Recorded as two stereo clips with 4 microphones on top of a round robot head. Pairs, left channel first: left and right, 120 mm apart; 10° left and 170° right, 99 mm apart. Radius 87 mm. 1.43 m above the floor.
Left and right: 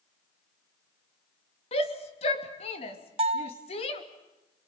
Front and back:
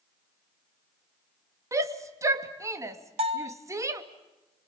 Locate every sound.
1.7 s a shout: 135° left, 2.5 m
3.2 s a bell: 135° right, 2.5 m